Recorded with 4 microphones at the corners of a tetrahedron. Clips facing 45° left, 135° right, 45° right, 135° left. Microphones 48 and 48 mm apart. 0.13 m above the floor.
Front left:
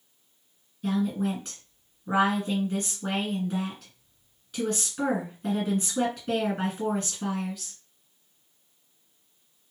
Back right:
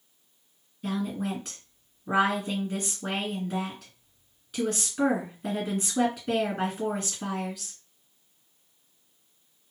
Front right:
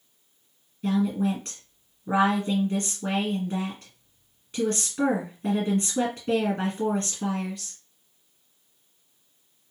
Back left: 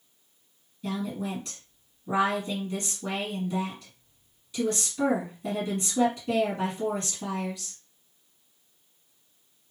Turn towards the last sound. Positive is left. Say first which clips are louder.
# front left 3 dB, front right 7 dB
turn(degrees=-50)